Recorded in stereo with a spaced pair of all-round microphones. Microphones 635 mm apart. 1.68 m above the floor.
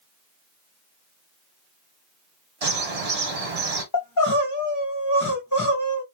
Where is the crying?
30° left (ahead or behind), 1.2 m.